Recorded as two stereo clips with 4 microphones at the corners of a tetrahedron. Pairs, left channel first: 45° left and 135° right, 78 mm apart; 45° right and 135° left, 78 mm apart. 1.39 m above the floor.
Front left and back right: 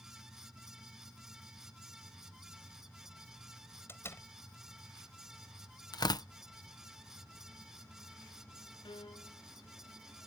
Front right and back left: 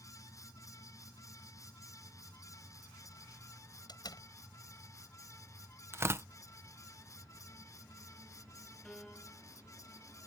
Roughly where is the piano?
Ahead left.